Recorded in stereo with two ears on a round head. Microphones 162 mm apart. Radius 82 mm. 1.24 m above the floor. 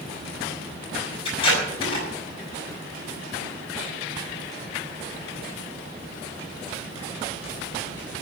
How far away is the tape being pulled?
About 6 m.